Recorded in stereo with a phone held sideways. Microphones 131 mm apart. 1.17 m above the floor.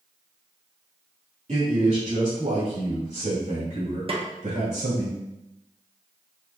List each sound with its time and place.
1.5 s a man speaking: 50° right (ahead or behind), 2 m; by 5.1 s 70° right (ahead or behind), 4.5 m
4.1 s a snare drum: 45° right (ahead or behind), 0.8 m